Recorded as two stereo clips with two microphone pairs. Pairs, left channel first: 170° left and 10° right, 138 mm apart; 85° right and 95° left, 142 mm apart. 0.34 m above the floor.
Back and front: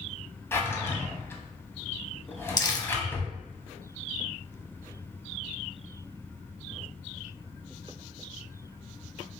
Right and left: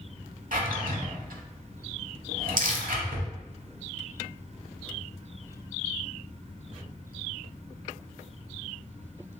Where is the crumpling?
110° left, 0.6 m.